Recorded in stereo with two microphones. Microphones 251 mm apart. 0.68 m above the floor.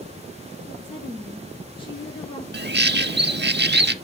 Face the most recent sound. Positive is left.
turn(degrees=-45)  # may be behind; listen again after turning